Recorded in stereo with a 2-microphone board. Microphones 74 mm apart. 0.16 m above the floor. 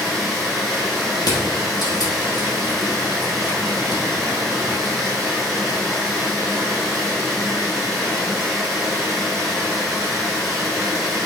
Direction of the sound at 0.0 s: Centre (ahead or behind).